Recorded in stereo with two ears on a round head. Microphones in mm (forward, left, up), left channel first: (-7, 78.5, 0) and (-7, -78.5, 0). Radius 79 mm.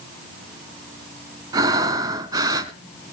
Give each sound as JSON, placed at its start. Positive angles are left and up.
{"t": 1.5, "sound": "breathing", "side_deg": -20, "distance_m": 0.8}